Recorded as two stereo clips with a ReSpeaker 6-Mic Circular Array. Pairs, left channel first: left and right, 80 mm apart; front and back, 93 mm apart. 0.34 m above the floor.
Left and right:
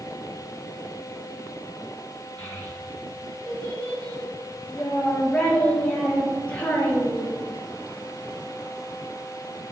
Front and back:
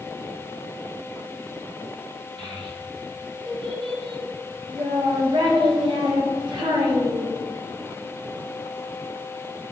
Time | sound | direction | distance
2.4 | a child speaking | 160° left | 4.5 m